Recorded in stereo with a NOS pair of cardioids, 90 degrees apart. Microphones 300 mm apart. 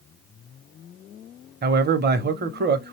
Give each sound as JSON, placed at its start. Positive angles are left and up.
{"t": 1.6, "sound": "a man speaking", "azimuth_deg": -35, "distance_m": 0.8}